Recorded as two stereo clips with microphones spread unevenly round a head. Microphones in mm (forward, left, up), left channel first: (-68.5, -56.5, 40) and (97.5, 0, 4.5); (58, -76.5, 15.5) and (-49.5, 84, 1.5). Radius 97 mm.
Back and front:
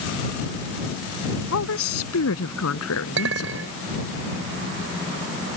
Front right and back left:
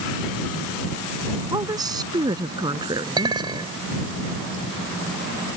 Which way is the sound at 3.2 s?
55° left.